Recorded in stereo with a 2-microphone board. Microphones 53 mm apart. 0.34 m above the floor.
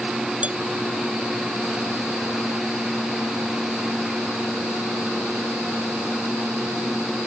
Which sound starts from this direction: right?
Dishes clattering, at 0.4 s.